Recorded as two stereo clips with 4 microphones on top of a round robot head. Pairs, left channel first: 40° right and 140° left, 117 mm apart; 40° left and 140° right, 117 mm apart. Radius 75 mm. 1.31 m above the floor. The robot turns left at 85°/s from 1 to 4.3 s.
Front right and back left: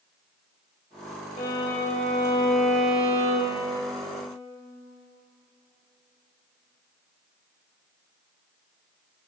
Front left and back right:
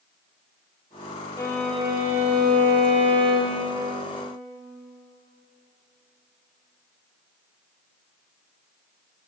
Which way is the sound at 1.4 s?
10° right.